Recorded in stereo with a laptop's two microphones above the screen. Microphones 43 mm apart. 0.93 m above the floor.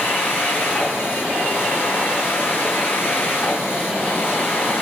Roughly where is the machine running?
Left.